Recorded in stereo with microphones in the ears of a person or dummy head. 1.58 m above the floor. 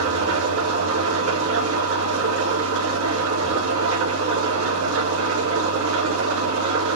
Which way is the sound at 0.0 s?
75° right (ahead or behind).